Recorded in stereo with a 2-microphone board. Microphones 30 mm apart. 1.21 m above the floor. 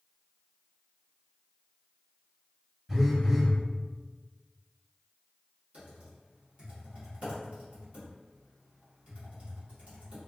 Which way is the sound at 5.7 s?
45° right (ahead or behind).